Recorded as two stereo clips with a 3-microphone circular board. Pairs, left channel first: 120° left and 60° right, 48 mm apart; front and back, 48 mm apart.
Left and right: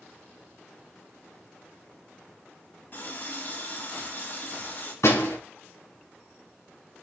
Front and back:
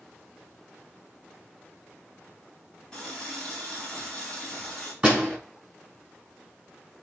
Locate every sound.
2.9 s a running tap: 75° left, 3.5 m
5.0 s a door slam: 105° left, 6 m